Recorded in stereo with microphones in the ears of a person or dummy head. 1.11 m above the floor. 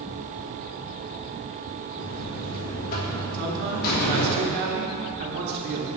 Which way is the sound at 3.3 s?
60° right (ahead or behind).